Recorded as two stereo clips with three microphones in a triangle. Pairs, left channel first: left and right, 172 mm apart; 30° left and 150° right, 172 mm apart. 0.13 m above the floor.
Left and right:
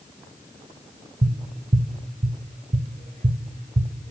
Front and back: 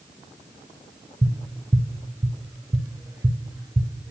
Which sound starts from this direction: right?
Tapping, at 1.2 s.